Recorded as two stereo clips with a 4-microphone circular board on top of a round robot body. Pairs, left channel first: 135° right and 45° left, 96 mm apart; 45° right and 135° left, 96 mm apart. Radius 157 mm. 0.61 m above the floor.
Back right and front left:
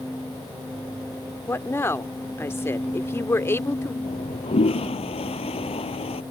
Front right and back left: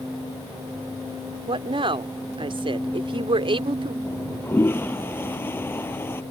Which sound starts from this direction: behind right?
A toilet flushing, at 4.0 s.